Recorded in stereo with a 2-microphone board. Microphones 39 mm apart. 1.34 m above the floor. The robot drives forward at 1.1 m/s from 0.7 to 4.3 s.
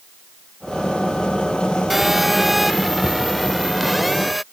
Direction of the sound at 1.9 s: 5° right (ahead or behind).